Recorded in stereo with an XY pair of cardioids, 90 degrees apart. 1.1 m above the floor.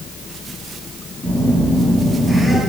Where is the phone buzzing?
5° right, 4 m.